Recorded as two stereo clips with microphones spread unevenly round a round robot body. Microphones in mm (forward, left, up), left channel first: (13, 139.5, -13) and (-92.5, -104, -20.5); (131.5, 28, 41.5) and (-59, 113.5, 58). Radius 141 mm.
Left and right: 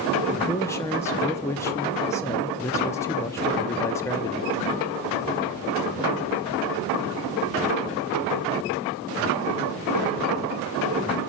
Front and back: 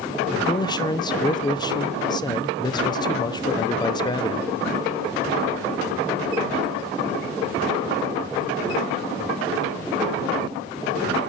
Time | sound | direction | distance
0.3 | a man speaking | 5° right | 0.8 m